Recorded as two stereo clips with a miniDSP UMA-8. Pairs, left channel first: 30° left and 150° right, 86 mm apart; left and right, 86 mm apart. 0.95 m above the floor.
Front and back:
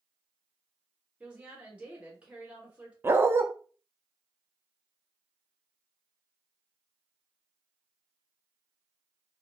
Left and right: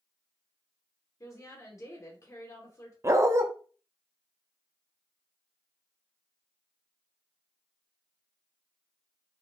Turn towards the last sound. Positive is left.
turn(degrees=-110)